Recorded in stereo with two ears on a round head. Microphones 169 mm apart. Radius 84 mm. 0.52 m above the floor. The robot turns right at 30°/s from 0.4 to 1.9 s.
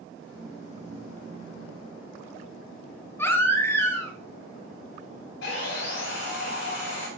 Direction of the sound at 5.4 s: 65° left (ahead or behind).